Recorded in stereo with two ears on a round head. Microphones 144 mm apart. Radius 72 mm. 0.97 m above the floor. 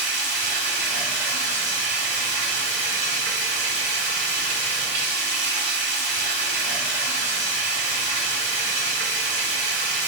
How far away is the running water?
About 1.4 m.